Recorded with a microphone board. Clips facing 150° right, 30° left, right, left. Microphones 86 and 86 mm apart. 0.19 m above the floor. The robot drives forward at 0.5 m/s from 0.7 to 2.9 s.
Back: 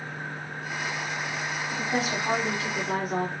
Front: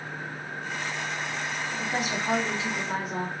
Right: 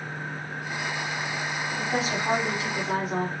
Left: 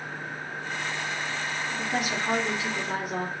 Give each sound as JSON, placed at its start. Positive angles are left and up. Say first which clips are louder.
{"t": 1.7, "sound": "a woman speaking", "louder": "back 3 dB, right 2 dB", "azimuth_deg": -120, "distance_m": 1.3}